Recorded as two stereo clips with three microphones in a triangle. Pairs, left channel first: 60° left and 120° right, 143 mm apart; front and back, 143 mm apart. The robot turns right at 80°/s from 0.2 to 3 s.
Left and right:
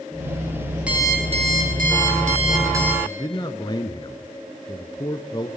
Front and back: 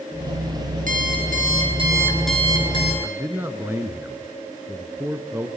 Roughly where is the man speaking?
Behind left.